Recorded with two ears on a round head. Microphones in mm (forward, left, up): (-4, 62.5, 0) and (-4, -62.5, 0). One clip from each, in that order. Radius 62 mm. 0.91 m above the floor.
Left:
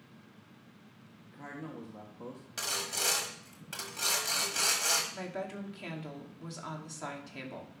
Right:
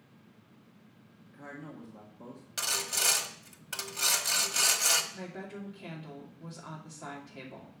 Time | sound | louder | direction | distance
1.2 | a man speaking | left 1 dB | 20° left (ahead or behind) | 1.6 m
2.6 | sawing | right 3 dB | 30° right (ahead or behind) | 1.2 m
5.1 | a woman speaking | left 4 dB | 50° left (ahead or behind) | 2.5 m